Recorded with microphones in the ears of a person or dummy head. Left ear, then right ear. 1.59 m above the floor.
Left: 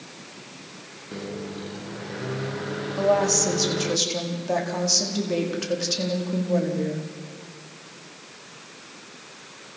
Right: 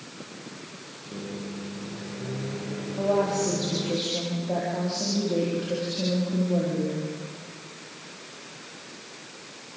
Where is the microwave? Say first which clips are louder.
Left 3 dB; 60° left (ahead or behind), 0.9 m.